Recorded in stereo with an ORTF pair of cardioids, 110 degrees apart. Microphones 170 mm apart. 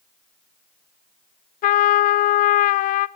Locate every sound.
1.6 s a trumpet: 60° left, 0.6 m